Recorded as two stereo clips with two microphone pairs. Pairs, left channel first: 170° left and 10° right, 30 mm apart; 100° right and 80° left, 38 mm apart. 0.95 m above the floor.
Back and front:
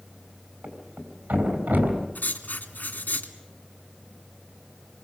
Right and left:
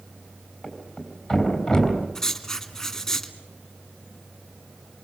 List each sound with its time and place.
0.6 s a thud: 20° right, 4.5 m
2.1 s writing: 175° right, 2.5 m